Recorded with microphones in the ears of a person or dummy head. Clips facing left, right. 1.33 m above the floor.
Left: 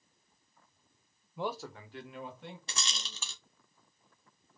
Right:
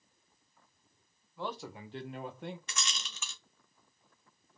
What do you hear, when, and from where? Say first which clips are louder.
1.4 s a man speaking: left 3 dB; 15° left (ahead or behind), 0.9 m; by 2.6 s 50° right (ahead or behind), 1.6 m
2.7 s a rattle: even; 25° left (ahead or behind), 0.7 m